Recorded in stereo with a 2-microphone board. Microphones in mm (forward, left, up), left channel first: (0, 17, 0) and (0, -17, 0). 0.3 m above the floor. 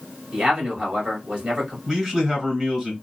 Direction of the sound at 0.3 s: 35° right (ahead or behind).